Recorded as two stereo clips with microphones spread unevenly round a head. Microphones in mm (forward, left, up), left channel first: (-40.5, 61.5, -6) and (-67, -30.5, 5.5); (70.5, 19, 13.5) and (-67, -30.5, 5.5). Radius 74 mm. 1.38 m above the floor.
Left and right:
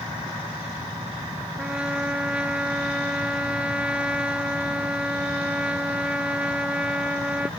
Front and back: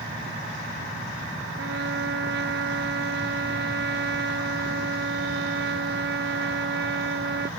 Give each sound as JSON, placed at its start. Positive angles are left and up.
{"t": 1.6, "sound": "a trumpet", "azimuth_deg": 175}